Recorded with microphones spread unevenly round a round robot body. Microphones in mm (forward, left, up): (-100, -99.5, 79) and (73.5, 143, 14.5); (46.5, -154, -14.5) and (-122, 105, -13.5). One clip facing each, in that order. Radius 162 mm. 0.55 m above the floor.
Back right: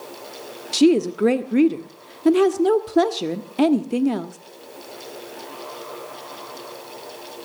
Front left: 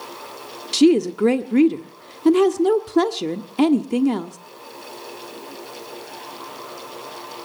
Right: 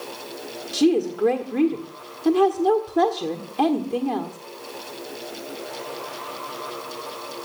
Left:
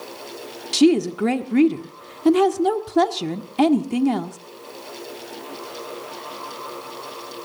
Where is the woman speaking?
120° left, 1.3 m.